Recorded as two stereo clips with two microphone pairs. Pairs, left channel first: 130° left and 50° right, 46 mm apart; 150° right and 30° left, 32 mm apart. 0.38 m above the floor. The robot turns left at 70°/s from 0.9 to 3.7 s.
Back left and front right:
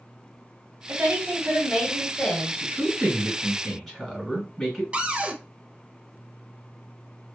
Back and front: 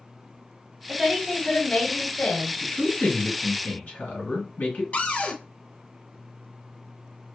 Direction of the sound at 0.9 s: 50° right.